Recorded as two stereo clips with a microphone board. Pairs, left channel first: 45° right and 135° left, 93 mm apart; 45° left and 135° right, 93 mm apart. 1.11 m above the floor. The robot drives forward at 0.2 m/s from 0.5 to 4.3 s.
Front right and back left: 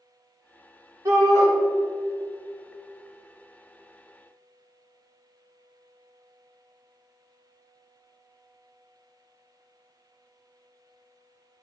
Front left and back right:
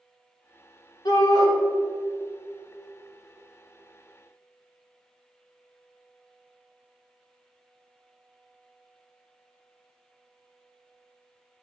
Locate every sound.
1.1 s a shout: 80° left, 3.5 m